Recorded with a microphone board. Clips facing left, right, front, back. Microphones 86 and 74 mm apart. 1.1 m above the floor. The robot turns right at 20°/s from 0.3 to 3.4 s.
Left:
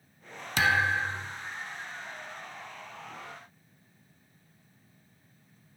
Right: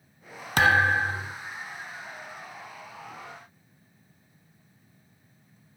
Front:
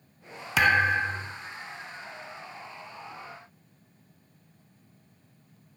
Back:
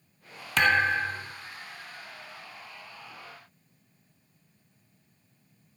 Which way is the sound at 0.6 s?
85° right.